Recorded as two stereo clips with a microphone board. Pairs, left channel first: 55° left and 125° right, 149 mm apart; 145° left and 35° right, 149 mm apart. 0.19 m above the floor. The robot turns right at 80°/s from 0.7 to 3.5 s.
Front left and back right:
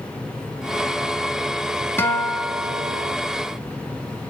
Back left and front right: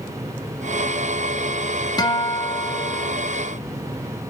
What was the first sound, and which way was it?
A guitar, 115° left.